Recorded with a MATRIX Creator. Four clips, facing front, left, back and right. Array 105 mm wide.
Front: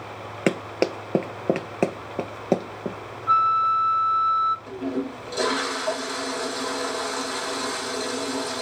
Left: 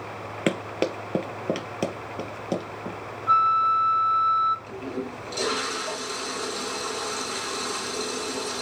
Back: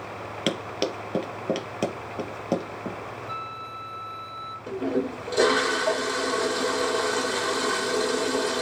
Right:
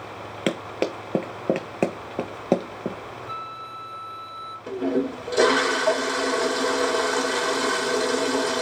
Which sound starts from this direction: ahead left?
A flute, at 3.3 s.